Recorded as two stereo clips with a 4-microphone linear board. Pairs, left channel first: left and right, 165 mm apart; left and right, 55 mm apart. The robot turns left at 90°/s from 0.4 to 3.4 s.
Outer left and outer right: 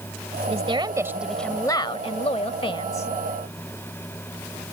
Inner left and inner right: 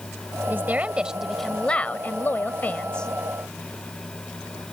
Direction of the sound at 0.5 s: 105° right.